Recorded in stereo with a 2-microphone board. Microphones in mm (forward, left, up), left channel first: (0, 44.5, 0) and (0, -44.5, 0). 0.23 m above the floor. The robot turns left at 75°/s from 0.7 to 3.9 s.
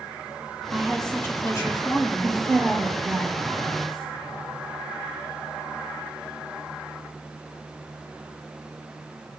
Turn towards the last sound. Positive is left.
turn(degrees=-70)